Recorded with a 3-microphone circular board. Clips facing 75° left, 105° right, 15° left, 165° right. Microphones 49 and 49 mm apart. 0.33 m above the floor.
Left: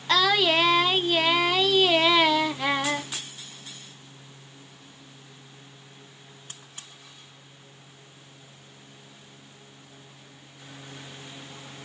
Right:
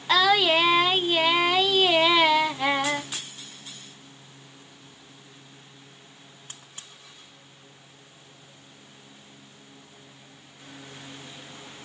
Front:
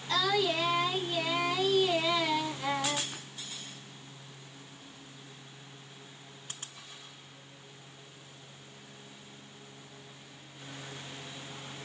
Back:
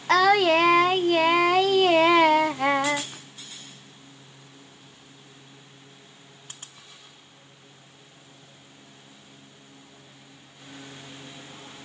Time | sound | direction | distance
0.1 | singing | 175° left | 0.7 m